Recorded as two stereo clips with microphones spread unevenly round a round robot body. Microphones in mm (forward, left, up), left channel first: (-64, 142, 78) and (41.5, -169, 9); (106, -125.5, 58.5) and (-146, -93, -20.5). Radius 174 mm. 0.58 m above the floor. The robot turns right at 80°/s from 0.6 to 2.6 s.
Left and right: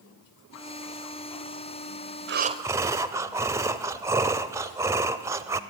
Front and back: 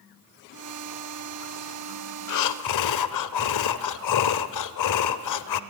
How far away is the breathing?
About 0.8 m.